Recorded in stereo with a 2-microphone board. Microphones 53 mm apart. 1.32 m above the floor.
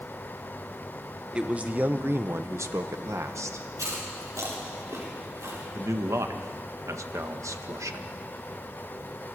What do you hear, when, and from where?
1.3 s a man speaking: 20° right (ahead or behind), 1.2 m; by 3.7 s 70° right (ahead or behind), 1.5 m
3.8 s chewing: 85° right, 4.5 m
5.7 s a man speaking: 90° right, 1.2 m